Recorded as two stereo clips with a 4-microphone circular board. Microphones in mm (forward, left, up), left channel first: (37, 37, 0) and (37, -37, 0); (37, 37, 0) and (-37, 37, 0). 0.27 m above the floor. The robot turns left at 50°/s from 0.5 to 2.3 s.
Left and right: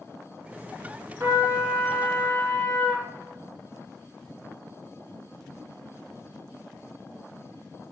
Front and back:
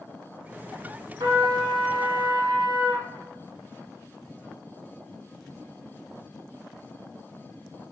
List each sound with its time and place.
1.2 s a trumpet: 150° right, 2.5 m; by 3.0 s 155° left, 2.5 m